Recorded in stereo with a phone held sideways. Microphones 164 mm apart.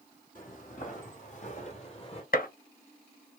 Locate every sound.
0.3 s footsteps: 50° left (ahead or behind), 2.5 m; by 2.2 s 35° left (ahead or behind), 2.0 m
2.3 s a gunshot: 60° left (ahead or behind), 0.7 m